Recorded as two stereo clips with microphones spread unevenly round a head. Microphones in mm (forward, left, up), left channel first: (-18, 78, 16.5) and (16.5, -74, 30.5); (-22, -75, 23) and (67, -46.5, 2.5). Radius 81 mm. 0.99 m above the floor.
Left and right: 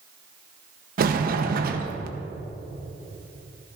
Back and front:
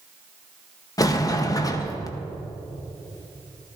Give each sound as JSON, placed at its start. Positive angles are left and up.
{"t": 1.0, "sound": "a sliding door", "azimuth_deg": -105, "distance_m": 1.0}